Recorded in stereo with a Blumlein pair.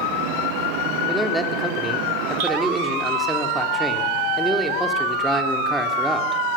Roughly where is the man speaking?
Ahead.